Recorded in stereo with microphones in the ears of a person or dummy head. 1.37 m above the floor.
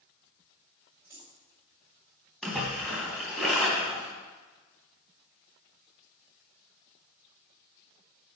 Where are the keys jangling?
15° right (ahead or behind), 2.5 m.